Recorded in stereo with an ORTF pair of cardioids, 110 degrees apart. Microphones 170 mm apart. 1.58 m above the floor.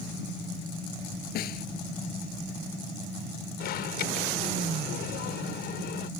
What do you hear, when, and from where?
1.4 s a snare drum: 70° left
3.6 s an alarm: 70° left